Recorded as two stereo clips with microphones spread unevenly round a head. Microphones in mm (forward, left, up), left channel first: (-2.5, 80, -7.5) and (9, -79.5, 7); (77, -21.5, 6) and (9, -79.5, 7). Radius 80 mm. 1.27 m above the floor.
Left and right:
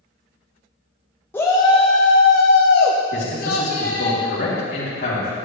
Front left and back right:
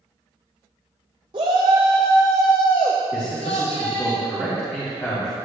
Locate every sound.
1.3 s a shout: 170° left, 0.8 m; by 4.1 s 55° left, 1.4 m
3.1 s a man speaking: 120° left, 3 m